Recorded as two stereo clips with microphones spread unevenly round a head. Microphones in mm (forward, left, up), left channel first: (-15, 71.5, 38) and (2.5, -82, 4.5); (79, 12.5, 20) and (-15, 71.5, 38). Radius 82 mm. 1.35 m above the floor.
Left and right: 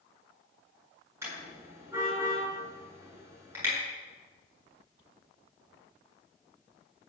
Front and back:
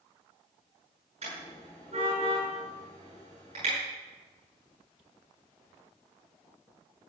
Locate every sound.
1.2 s a car horn: 160° right, 9 m